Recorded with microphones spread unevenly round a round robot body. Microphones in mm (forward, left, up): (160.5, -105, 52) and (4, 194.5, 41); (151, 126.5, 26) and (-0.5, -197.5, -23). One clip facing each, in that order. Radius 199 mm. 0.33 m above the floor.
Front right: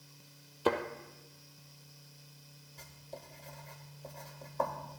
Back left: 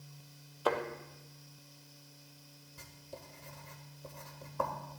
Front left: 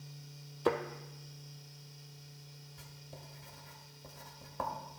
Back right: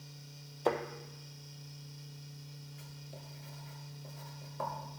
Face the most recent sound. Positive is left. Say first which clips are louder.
# front right 1 dB, back right 2 dB
turn(degrees=50)